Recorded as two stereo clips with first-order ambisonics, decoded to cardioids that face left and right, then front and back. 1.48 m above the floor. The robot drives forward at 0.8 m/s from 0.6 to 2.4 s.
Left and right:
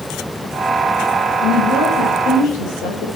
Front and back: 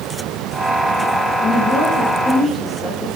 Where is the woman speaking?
75° left, 8.5 m; by 3.1 s 85° left, 8 m.